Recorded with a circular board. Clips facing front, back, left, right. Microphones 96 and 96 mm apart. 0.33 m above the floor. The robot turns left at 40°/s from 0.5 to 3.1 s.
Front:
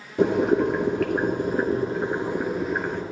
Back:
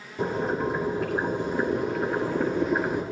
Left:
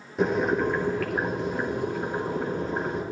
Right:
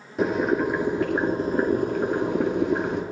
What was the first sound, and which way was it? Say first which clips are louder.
Boiling: front 7 dB, right 1 dB; straight ahead.